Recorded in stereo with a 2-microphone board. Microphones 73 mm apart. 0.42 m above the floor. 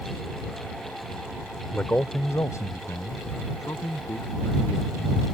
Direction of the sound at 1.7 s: 20° left (ahead or behind).